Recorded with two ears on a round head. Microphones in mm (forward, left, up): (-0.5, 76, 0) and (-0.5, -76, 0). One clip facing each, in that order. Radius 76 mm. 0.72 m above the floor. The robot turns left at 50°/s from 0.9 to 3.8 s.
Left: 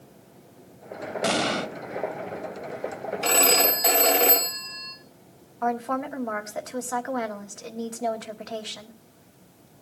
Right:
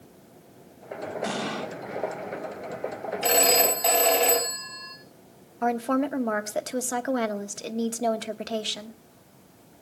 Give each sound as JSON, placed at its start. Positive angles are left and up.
{"t": 1.2, "sound": "an explosion", "side_deg": 80, "distance_m": 1.1}
{"t": 3.2, "sound": "a phone ringing", "side_deg": -25, "distance_m": 3.5}
{"t": 5.6, "sound": "a woman speaking", "side_deg": -35, "distance_m": 1.1}